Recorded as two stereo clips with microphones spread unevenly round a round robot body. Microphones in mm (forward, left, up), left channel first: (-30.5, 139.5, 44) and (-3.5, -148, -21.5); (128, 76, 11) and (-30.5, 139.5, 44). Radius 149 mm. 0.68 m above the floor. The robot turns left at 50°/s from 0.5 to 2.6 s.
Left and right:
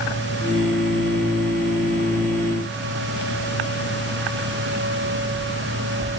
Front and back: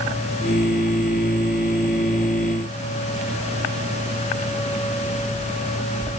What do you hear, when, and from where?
Only background noise.